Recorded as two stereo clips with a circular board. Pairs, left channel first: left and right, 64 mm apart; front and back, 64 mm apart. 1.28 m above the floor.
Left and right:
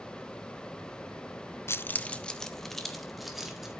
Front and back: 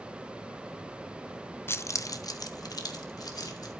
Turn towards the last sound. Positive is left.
turn(degrees=-5)